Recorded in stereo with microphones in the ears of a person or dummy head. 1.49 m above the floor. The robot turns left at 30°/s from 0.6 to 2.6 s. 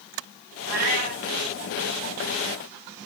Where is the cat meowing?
40° right (ahead or behind), 1.1 m; by 1.2 s 30° right (ahead or behind), 1.1 m.